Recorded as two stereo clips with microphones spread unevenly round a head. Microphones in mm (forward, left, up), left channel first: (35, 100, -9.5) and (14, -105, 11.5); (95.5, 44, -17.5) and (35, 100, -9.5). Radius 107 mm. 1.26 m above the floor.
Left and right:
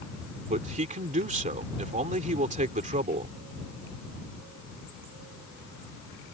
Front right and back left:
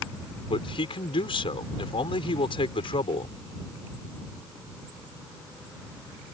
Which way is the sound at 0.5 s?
40° right.